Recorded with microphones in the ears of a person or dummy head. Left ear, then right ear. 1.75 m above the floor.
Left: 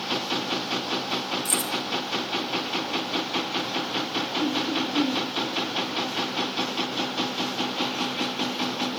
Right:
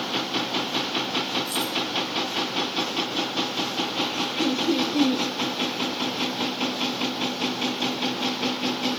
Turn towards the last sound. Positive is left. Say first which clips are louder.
# right 2 dB
turn(degrees=-75)  # may be behind; listen again after turning